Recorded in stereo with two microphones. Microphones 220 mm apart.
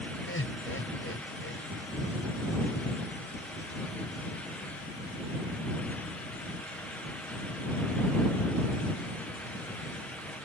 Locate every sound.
0.3 s laughter: 80° left